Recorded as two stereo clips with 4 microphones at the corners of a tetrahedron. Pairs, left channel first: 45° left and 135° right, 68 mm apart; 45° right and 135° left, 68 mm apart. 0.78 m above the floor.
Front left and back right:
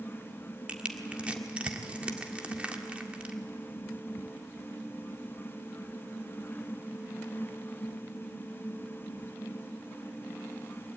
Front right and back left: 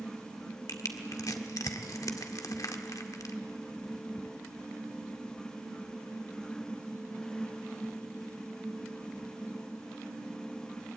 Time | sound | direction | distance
0.7 | crushing | 65° right | 1.7 m